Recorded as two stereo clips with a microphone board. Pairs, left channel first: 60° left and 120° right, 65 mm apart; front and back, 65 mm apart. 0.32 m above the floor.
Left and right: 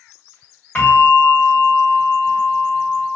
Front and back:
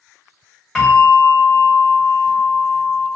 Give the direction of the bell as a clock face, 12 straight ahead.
9 o'clock.